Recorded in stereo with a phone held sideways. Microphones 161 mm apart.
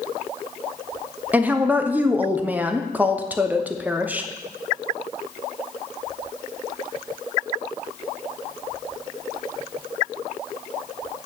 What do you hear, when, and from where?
1.3 s a woman speaking: 10° right (ahead or behind), 0.6 m